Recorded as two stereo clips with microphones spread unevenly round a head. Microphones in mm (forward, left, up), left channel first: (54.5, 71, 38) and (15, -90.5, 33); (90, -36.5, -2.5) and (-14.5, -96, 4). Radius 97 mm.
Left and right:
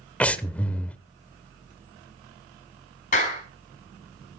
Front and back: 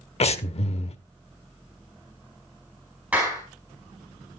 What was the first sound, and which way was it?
Breathing, 5° right.